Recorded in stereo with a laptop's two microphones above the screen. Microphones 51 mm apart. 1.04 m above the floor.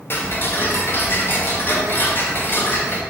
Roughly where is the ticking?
Left.